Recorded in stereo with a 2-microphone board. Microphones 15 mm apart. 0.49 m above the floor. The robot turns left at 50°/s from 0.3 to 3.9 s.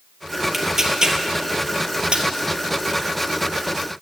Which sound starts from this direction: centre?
Tearing paper, at 0.5 s.